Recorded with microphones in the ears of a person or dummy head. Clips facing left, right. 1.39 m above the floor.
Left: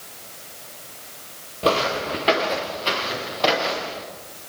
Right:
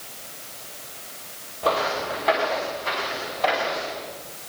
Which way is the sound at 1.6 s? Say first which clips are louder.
Left 3 dB; 40° left (ahead or behind).